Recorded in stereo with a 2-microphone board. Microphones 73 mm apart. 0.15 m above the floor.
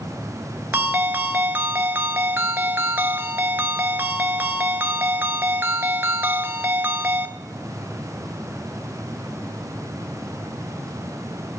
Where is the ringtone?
30° right (ahead or behind), 0.8 m.